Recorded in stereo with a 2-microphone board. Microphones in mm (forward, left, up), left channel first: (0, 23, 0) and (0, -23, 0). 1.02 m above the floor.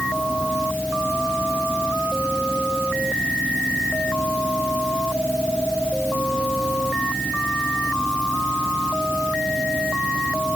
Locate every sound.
Only background noise.